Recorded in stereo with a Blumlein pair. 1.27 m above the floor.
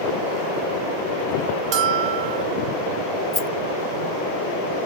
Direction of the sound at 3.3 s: 20° left.